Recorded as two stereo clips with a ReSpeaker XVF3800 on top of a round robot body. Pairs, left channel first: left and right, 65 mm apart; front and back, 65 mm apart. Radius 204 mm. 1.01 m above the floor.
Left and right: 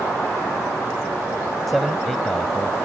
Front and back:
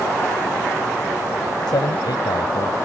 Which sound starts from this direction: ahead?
A man speaking, at 1.7 s.